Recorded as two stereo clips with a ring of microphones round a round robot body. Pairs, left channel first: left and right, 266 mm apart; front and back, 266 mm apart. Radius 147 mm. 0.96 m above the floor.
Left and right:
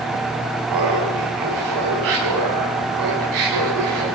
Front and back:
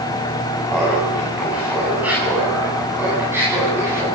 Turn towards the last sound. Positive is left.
turn(degrees=-100)